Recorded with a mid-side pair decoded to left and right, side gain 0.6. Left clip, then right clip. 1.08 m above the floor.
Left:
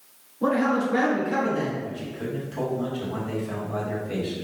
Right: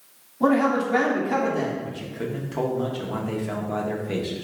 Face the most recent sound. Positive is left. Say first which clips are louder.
# right 1 dB
turn(degrees=-40)